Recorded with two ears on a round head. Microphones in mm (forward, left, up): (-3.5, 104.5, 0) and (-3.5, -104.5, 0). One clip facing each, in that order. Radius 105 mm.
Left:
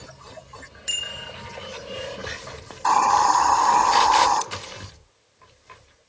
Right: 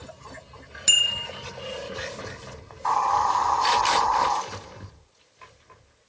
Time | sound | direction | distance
0.9 | a bicycle bell | 65° right (ahead or behind) | 3 m
2.7 | a hiss | 60° left (ahead or behind) | 1.2 m